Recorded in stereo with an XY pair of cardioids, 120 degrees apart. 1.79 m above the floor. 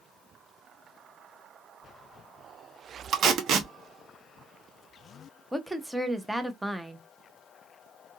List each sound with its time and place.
3.1 s tape being pulled: 55° right, 0.8 m
5.5 s a woman speaking: 5° right, 0.7 m